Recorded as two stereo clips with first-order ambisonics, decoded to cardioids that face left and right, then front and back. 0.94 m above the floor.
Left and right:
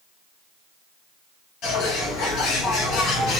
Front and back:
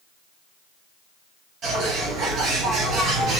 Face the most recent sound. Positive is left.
turn(degrees=125)